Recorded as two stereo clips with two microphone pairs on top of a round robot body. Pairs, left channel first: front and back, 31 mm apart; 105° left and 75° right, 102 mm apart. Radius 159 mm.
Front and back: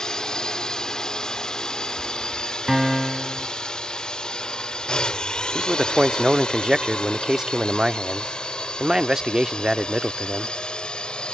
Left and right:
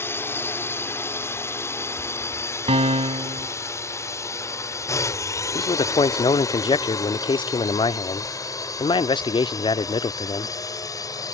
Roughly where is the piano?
Right.